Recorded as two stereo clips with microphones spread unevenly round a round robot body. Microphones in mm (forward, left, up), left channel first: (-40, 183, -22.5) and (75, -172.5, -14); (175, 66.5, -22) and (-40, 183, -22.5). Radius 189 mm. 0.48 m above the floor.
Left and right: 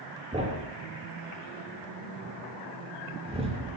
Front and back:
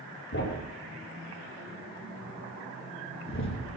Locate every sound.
0.3 s a thud: 5° left, 6 m